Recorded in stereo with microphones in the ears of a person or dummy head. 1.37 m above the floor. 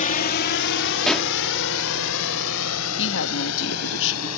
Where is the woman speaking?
70° left (ahead or behind).